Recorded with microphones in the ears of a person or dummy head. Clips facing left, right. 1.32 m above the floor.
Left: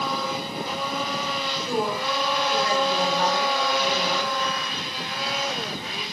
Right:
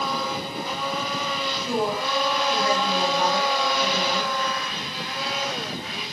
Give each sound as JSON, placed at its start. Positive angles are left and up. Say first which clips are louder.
{"t": 1.7, "sound": "a woman speaking", "louder": "right 1 dB", "side_deg": -15, "distance_m": 2.0}